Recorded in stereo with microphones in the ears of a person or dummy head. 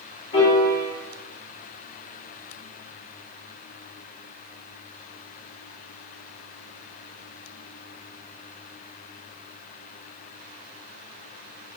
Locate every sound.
0.3 s a piano: 20° left (ahead or behind), 1.2 m